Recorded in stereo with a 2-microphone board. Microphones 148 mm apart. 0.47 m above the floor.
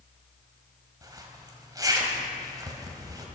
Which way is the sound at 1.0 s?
25° right (ahead or behind).